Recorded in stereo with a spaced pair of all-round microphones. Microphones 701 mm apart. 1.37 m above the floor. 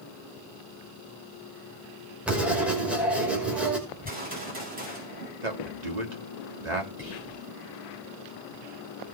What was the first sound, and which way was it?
Writing, centre (ahead or behind).